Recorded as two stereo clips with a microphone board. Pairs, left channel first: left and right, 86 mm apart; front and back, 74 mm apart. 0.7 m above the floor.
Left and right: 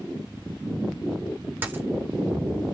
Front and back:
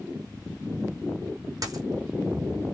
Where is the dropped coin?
155° right, 1.4 m.